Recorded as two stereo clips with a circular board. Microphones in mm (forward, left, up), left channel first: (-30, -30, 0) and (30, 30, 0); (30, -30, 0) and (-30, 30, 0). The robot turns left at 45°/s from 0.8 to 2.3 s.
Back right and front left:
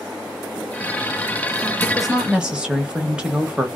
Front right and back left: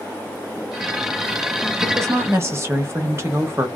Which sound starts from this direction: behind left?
A woman speaking, at 1.8 s.